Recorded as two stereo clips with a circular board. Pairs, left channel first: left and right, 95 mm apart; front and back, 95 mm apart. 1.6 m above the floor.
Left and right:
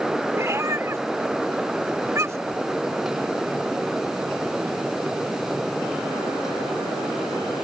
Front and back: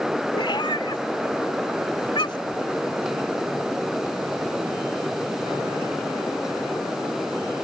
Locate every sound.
0.3 s a cat meowing: 30° right